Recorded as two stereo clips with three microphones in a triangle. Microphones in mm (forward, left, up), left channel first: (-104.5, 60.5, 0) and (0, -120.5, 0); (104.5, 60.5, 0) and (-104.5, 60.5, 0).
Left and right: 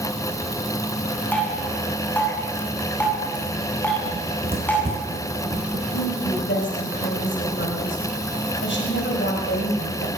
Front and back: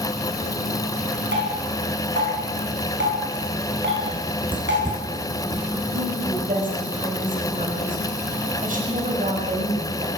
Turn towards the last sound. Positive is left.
turn(degrees=135)